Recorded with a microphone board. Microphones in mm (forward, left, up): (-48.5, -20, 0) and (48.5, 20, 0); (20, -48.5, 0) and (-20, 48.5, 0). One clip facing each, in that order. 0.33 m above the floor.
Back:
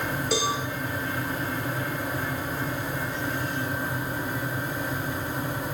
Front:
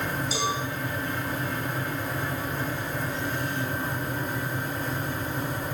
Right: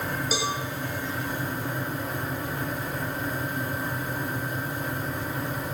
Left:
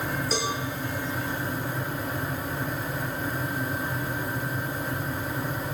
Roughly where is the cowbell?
Behind right.